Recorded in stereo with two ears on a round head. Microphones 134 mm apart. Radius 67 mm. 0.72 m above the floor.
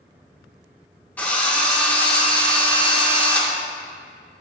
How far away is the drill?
About 2.5 m.